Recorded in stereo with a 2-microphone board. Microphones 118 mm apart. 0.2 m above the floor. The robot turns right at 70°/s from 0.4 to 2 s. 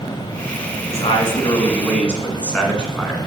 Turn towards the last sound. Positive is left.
turn(degrees=170)